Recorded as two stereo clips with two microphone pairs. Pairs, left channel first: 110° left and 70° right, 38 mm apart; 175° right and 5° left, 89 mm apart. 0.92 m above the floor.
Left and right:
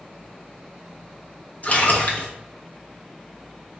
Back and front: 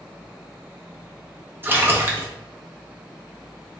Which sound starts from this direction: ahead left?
A splash, at 1.6 s.